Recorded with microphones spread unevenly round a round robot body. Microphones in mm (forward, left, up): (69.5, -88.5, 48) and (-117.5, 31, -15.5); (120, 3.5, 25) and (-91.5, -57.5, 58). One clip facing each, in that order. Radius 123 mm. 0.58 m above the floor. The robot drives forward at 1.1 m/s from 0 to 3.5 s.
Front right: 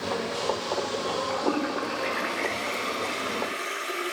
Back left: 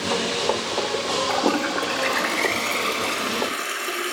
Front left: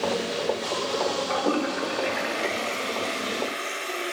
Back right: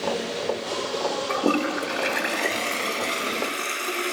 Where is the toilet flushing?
150° left, 1.7 m; by 4.1 s 165° left, 4 m.